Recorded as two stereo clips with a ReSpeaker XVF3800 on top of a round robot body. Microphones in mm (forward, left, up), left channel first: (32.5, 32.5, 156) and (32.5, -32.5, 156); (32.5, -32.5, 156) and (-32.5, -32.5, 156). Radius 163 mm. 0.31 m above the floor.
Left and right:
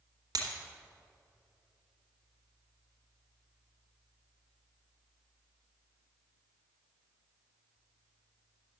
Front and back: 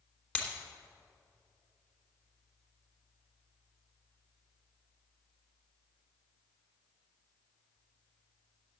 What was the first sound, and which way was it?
Breaking glass, 70° right.